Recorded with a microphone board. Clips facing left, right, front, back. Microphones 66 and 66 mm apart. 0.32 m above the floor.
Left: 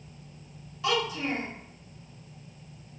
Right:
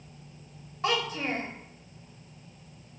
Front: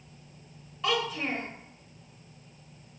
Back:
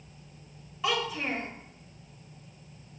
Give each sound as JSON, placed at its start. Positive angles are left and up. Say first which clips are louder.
{"t": 0.8, "sound": "a child speaking", "louder": "left 1 dB, front 1 dB", "azimuth_deg": -95, "distance_m": 0.6}